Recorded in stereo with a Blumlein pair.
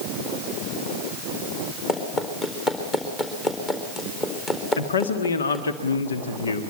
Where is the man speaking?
70° left, 1.5 m.